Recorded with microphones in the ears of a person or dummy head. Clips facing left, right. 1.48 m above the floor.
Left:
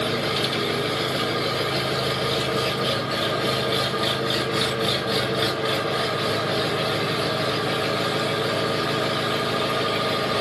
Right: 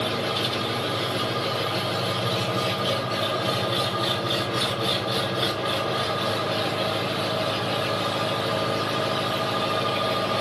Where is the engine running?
35° left (ahead or behind), 0.8 m.